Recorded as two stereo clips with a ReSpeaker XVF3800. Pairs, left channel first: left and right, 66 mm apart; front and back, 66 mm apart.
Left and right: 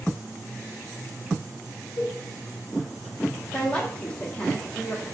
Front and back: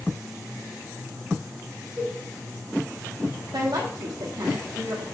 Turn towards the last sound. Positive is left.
turn(degrees=160)